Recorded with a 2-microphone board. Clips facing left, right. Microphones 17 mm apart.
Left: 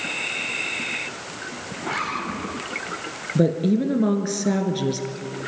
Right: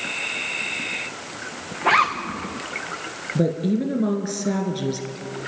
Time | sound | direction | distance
1.8 | a zipper | 80° right | 4 m
3.4 | a woman speaking | 10° left (ahead or behind) | 1.7 m